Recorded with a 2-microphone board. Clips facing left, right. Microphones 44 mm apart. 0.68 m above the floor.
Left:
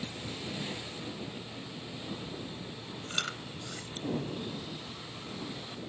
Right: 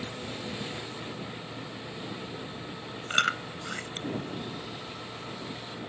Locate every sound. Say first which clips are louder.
0.0 s an engine running: right 3 dB; 40° right (ahead or behind)
3.1 s chewing: right 10 dB; 55° right (ahead or behind)